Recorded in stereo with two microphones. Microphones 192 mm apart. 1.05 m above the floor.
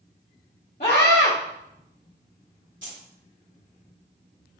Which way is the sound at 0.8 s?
50° left (ahead or behind).